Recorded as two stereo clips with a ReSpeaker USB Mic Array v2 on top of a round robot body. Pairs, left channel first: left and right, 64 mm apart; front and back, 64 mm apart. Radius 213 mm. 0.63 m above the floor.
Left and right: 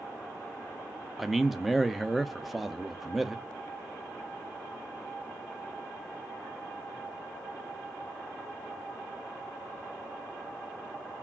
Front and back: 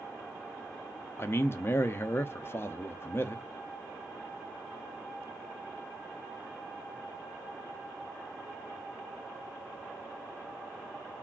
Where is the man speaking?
5° right, 0.6 m.